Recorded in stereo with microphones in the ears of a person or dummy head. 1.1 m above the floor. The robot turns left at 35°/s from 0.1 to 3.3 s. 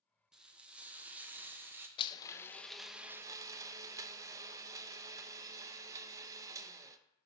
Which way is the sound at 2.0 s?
30° left.